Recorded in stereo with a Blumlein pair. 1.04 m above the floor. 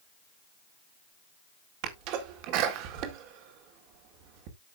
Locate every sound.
1.8 s a sneeze: 40° right, 2.5 m